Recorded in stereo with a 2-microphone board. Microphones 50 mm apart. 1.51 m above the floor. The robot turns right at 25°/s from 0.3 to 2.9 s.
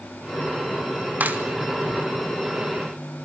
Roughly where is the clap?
Right.